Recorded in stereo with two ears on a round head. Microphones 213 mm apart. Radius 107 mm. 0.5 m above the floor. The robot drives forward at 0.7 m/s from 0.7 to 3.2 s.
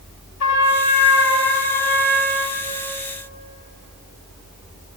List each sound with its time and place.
0.4 s a trumpet: 85° left, 1.2 m; by 2.7 s 40° left (ahead or behind), 1.9 m